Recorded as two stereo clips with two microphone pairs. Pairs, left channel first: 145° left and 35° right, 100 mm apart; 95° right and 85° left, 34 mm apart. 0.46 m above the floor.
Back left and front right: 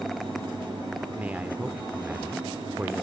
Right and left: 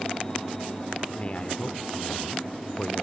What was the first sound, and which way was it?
A man speaking, 100° right.